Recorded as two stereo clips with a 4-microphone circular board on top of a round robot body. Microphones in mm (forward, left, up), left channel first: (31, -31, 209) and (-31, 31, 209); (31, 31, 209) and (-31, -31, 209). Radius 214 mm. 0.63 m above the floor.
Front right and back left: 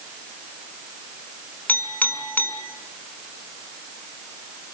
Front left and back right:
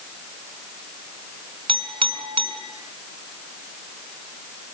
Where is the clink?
115° right, 4.5 m.